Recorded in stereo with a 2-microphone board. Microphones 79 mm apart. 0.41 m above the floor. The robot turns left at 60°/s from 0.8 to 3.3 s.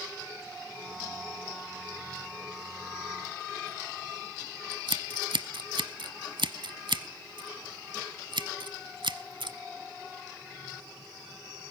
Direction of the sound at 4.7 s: 80° right.